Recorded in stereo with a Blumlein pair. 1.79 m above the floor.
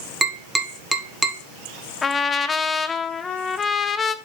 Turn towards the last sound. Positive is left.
turn(degrees=15)